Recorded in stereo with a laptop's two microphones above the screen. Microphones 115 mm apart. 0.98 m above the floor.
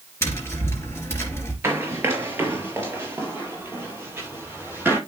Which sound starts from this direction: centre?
Running footsteps, at 1.6 s.